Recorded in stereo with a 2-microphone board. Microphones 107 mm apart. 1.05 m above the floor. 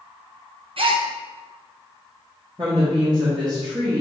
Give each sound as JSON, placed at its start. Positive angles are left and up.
{"t": 0.8, "sound": "a gasp", "side_deg": -60, "distance_m": 0.6}
{"t": 2.6, "sound": "a woman speaking", "side_deg": -45, "distance_m": 1.2}